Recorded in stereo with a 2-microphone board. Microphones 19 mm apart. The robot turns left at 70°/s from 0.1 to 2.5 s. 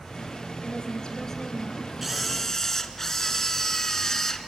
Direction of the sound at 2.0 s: 175° right.